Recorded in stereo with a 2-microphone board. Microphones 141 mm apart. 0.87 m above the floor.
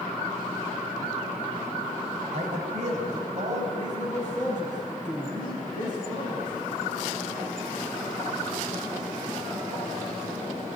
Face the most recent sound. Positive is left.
turn(degrees=-60)  # may be behind; listen again after turning